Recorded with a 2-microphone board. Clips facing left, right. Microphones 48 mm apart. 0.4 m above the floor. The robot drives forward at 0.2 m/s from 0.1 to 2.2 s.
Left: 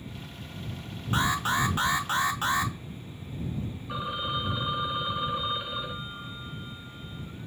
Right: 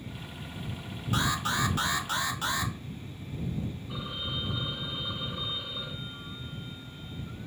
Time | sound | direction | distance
1.1 | an alarm | 25° left (ahead or behind) | 0.6 m
3.9 | a phone ringing | 50° left (ahead or behind) | 0.8 m